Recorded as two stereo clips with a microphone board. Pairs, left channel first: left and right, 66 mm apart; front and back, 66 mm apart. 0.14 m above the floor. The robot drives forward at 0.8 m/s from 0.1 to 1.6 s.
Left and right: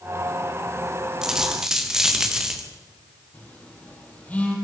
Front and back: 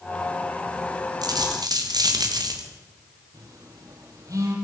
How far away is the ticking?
No ticking in this recording.